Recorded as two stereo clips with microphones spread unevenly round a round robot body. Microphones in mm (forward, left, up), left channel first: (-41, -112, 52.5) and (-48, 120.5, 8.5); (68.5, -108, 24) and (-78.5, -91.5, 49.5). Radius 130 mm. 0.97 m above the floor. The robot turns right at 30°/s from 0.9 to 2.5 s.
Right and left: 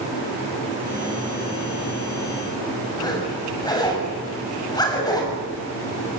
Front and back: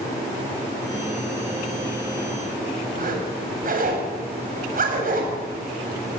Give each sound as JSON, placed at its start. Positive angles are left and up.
{"t": 3.0, "sound": "a zipper", "azimuth_deg": -165, "distance_m": 8.0}